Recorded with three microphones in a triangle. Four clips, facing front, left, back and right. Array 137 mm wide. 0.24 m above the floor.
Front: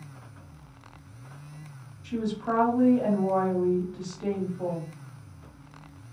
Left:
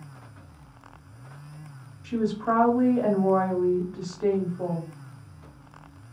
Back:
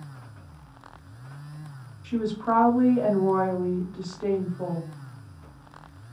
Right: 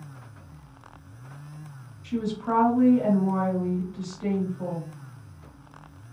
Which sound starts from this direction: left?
A woman speaking, at 2.0 s.